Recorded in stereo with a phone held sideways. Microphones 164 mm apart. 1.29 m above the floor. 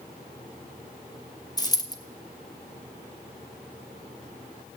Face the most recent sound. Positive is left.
turn(degrees=25)  # may be behind; listen again after turning